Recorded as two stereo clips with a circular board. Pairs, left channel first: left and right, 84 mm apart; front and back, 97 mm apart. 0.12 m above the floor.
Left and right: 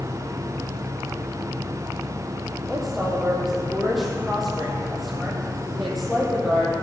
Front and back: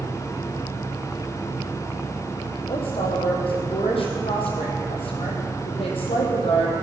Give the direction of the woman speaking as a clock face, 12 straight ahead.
12 o'clock.